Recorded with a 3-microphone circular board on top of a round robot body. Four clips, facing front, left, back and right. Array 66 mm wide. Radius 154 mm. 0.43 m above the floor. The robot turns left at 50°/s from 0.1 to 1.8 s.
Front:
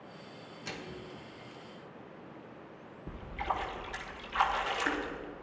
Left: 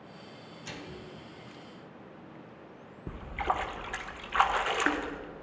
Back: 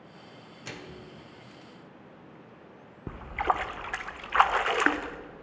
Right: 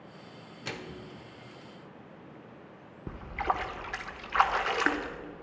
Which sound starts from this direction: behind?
A splash, at 3.1 s.